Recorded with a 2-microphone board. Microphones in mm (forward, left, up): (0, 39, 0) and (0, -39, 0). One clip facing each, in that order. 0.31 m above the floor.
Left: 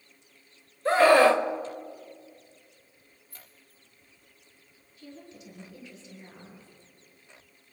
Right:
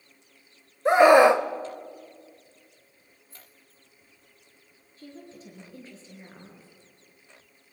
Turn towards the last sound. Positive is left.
turn(degrees=-35)  # may be behind; listen again after turning